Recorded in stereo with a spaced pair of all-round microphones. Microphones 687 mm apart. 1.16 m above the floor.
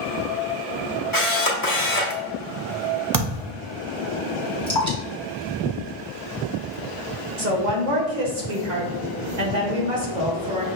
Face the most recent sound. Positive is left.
turn(degrees=-85)